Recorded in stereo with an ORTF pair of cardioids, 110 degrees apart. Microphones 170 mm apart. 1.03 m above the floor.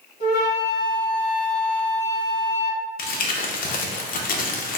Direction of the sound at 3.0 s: 55° left.